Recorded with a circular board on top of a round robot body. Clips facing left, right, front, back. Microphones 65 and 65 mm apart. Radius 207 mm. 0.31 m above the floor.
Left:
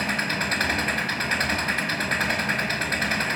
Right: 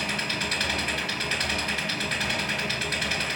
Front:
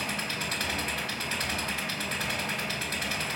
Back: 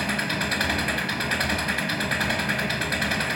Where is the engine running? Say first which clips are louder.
Left 4 dB, back 7 dB; 145° left, 4.5 m.